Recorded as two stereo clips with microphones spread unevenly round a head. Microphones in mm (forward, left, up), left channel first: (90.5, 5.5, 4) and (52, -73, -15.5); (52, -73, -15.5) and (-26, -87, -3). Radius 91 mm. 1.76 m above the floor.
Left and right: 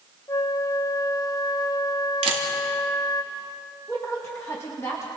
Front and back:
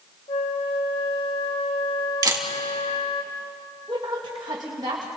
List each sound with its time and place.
0.3 s a flute: 30° left, 1.7 m
2.2 s a camera shutter: 135° right, 2.5 m
3.9 s a woman speaking: 135° left, 2.5 m